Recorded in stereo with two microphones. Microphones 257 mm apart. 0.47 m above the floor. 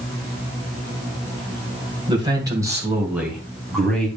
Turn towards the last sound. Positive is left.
turn(degrees=5)  # may be behind; listen again after turning